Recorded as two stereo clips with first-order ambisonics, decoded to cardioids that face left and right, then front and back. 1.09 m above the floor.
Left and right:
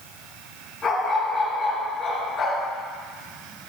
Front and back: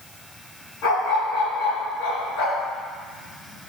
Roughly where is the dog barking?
Ahead.